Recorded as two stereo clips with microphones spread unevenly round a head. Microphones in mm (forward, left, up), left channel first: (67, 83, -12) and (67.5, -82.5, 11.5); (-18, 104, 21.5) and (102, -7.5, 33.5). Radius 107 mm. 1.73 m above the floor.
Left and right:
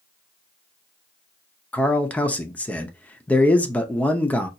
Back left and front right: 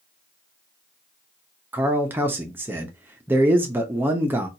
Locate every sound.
1.7 s a man speaking: straight ahead, 0.5 m